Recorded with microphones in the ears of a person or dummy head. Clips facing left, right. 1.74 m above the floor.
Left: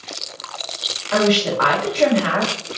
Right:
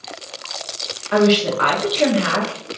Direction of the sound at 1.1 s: 25° right (ahead or behind).